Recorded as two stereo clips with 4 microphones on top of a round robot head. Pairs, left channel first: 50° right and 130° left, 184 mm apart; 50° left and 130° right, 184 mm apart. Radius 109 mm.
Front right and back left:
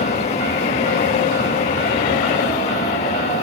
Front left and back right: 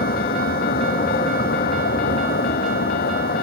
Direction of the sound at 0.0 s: 5° left.